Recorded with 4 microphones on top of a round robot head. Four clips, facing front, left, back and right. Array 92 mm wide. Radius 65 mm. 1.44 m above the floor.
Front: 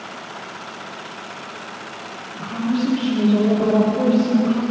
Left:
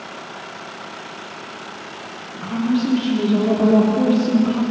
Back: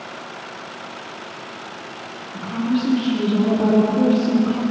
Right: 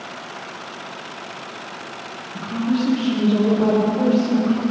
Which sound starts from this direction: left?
A woman speaking, at 2.3 s.